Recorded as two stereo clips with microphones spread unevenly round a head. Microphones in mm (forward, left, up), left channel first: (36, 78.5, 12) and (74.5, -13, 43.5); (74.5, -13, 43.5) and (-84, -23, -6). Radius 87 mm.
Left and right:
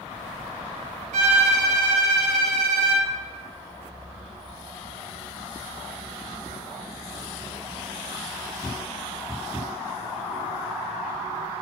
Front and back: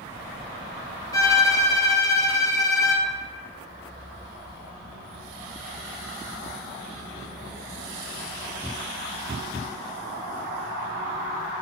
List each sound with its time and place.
1.1 s a violin: 70° right, 1.1 m